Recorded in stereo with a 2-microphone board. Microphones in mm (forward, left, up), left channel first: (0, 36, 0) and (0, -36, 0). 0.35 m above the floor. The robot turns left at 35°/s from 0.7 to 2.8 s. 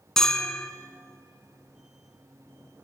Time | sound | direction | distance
0.2 | a bell | 10° left (ahead or behind) | 1.5 m